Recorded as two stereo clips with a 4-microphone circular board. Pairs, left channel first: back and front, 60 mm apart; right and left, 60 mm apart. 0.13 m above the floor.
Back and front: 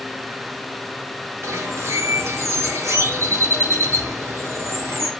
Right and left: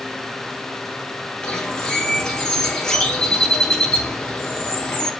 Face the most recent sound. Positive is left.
turn(degrees=-15)